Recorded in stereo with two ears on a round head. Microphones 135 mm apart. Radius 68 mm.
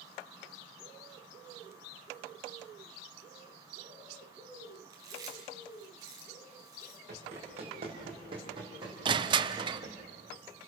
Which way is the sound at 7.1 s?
45° right (ahead or behind).